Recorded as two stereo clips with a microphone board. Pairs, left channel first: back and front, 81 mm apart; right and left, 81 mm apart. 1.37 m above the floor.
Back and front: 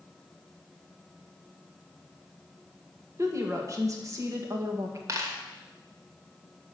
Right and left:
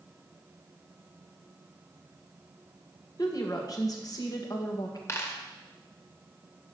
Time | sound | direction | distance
3.2 | a woman speaking | 50° right | 1.7 m
5.1 | a dropped coin | 40° right | 1.8 m